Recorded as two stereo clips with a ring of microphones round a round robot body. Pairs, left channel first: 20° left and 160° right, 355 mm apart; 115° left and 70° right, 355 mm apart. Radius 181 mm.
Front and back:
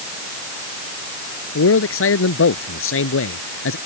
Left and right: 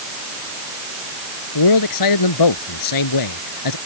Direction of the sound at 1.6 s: 80° left.